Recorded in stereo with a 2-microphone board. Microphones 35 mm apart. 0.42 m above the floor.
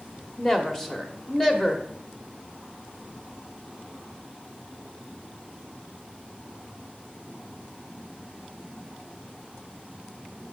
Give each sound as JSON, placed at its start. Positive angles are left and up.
{"t": 0.4, "sound": "a woman speaking", "side_deg": 10, "distance_m": 1.1}